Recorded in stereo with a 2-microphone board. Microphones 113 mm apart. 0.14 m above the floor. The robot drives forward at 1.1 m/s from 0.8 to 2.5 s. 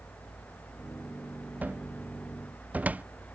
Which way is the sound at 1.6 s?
15° right (ahead or behind).